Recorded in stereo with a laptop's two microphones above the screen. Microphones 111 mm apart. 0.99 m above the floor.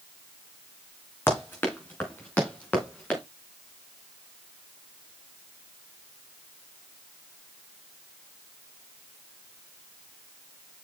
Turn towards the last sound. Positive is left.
turn(degrees=10)  # may be behind; listen again after turning